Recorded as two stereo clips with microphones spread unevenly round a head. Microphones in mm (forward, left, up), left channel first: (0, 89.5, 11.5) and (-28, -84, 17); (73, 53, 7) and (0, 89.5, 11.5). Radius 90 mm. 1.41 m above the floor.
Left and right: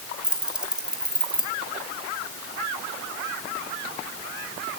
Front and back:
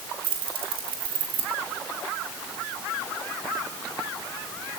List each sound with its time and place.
0.2 s keys jangling: 175° left, 2.5 m